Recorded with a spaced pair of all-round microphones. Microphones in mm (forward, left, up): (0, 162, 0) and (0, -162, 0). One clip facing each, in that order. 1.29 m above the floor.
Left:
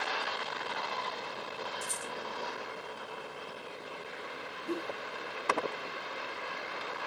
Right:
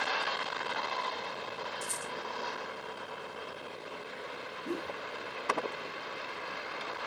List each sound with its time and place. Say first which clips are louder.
1.8 s a rattle: even; 35° right (ahead or behind), 3 m
4.7 s a whoosh: left 1 dB; 25° right (ahead or behind), 3 m